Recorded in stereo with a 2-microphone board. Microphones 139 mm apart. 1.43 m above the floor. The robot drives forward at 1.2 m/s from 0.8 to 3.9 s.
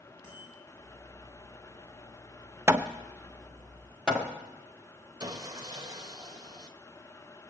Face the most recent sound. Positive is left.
turn(degrees=-30)  # may be behind; listen again after turning